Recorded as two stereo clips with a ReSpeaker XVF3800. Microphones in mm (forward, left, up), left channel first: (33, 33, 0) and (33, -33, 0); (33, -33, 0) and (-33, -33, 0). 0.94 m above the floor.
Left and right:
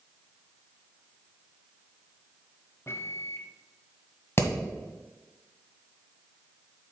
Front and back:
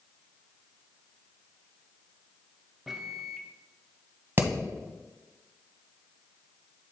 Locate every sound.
2.9 s a microwave: 100° left, 0.5 m
4.4 s hammering: 130° left, 1.4 m